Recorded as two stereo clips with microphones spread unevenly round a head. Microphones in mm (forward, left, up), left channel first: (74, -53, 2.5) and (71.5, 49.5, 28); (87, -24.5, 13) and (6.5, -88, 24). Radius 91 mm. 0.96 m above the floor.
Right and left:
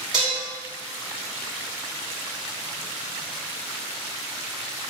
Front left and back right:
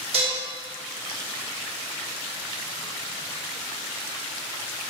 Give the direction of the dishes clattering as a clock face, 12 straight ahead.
7 o'clock.